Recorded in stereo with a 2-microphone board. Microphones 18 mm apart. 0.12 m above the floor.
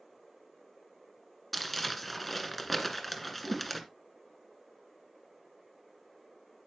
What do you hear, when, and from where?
1.5 s crumpling: 5° left (ahead or behind), 1.7 m
3.4 s a whoosh: 75° right (ahead or behind), 4.5 m